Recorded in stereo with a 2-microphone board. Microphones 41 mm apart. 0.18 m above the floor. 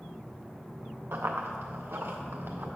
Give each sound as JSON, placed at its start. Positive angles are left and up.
{"t": 1.1, "sound": "running footsteps", "side_deg": -70, "distance_m": 1.2}